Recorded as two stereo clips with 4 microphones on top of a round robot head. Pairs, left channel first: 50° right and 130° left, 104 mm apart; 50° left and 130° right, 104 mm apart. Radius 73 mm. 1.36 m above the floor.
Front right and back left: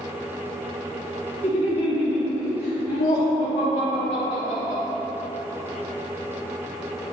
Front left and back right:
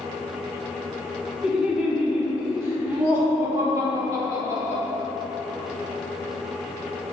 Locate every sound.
1.4 s laughter: 50° right, 2.5 m; by 4.8 s 70° right, 4.5 m